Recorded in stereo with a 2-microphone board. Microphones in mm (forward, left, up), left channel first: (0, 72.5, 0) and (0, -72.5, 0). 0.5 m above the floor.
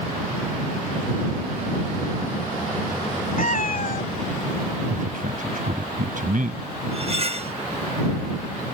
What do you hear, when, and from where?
3.4 s a cat meowing: 70° left (ahead or behind)
4.9 s a man speaking: 70° right (ahead or behind)
6.9 s cutlery clinking: 45° right (ahead or behind)